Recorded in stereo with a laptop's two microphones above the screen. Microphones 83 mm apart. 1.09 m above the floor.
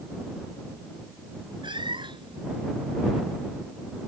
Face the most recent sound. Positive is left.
turn(degrees=-75)  # may be behind; listen again after turning